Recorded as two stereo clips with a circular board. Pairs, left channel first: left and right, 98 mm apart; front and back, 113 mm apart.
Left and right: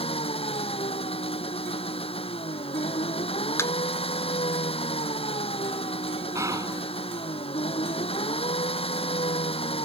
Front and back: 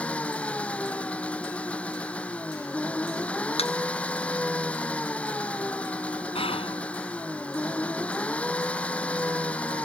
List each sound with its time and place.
0.0 s an engine running: 80° left
3.6 s a thud: 25° left
6.3 s whispering: 35° right